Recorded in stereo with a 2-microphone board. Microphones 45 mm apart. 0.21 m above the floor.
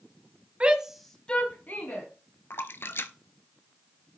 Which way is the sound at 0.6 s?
30° right (ahead or behind).